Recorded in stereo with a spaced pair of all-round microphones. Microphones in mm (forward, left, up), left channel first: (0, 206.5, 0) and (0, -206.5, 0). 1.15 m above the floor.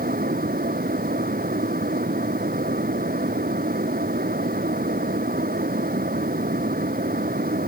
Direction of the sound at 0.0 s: 20° right (ahead or behind).